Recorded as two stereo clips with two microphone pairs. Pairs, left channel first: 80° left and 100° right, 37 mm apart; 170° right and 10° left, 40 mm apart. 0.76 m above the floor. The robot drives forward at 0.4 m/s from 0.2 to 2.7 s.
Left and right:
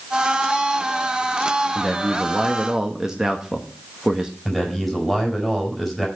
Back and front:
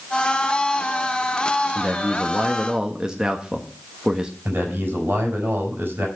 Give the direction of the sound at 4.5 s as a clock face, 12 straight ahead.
1 o'clock.